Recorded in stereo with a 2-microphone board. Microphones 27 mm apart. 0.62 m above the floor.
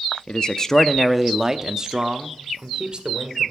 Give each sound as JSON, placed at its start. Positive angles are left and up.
{"t": 0.3, "sound": "a man speaking", "side_deg": 35, "distance_m": 0.7}